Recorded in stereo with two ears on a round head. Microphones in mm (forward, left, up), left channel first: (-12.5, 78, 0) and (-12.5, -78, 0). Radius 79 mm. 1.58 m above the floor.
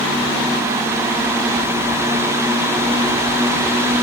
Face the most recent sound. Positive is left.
No sound to turn to.